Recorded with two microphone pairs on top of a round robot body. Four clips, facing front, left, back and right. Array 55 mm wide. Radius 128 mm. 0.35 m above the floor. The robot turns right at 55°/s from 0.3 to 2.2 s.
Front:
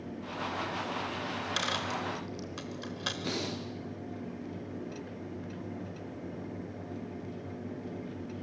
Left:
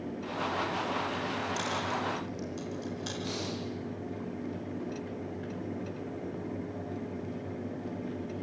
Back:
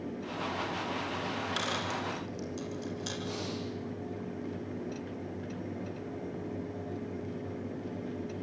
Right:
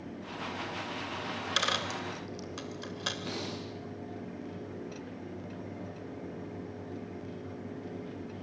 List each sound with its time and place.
1.3 s a dropped coin: 90° right, 2.5 m; by 3.1 s 40° right, 2.5 m
3.2 s breathing: 15° right, 5 m